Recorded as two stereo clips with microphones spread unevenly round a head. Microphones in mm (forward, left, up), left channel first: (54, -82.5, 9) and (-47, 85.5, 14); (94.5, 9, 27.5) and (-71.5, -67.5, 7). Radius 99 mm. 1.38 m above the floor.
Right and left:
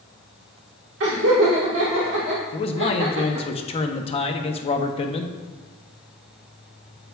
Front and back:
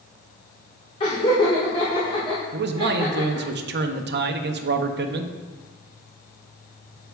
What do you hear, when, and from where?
1.0 s laughter: 90° left, 1.4 m
2.5 s a man speaking: 120° right, 0.7 m